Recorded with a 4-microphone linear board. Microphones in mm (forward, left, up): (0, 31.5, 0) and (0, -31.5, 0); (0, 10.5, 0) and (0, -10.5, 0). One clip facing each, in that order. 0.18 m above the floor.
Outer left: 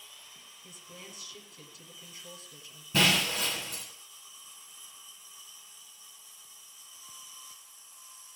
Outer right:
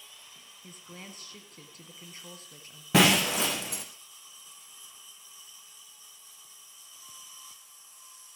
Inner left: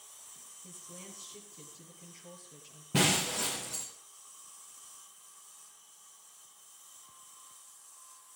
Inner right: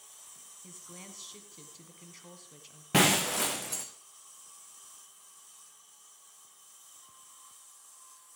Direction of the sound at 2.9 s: 70° right (ahead or behind).